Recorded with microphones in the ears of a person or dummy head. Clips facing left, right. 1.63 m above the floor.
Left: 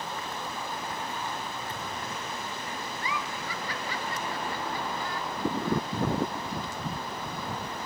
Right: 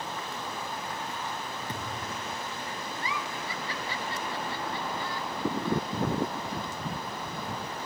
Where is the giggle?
35° right (ahead or behind), 1.5 m.